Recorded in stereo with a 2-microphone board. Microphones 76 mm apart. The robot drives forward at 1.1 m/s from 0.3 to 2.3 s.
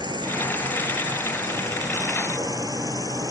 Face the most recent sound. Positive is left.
turn(degrees=-55)  # may be behind; listen again after turning